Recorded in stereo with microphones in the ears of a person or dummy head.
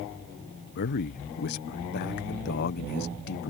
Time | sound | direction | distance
0.8 | a man speaking | 60° left (ahead or behind) | ?